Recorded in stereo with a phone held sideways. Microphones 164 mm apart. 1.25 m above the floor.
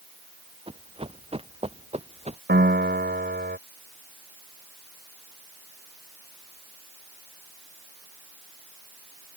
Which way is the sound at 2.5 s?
70° right (ahead or behind).